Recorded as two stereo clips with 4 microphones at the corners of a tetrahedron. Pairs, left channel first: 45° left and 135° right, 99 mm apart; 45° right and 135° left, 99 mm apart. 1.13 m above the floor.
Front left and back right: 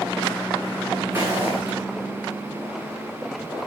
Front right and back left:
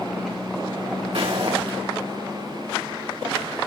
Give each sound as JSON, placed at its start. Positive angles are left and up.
{"t": 1.1, "sound": "footsteps", "azimuth_deg": 160, "distance_m": 4.5}